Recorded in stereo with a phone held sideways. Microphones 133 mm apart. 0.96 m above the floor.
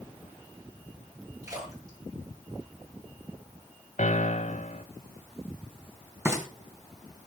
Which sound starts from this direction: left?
A piano, at 4.0 s.